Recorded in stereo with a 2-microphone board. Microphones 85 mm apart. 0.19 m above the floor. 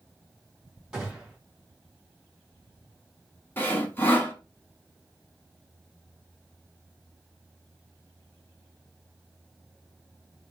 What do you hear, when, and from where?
0.9 s a gunshot: 10° right (ahead or behind), 3.5 m
3.6 s sawing: 25° left (ahead or behind), 1.2 m